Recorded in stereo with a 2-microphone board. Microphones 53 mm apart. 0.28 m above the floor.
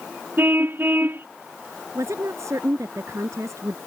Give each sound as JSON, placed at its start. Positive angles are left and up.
{"t": 0.4, "sound": "a car horn", "side_deg": -45}
{"t": 1.9, "sound": "a woman speaking", "side_deg": -75}